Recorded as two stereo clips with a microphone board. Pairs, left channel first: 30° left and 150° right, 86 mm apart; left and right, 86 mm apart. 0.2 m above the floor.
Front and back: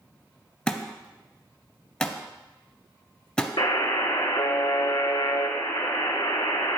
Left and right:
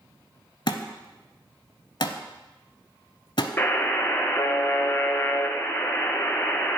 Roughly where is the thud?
Left.